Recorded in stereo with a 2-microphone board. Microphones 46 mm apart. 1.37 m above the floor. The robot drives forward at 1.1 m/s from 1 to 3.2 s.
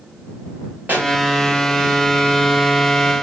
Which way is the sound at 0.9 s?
40° right (ahead or behind).